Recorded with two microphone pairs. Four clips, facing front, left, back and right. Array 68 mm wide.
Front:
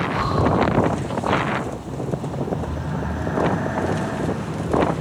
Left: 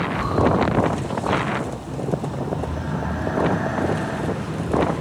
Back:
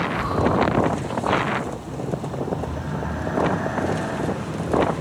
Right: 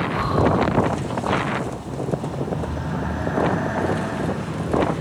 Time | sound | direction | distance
0.1 | breathing | 40° right | 5.5 m